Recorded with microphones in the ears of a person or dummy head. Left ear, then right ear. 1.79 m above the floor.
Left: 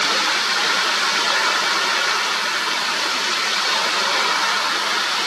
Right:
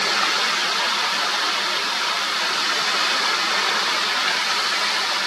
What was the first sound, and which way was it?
Only background noise.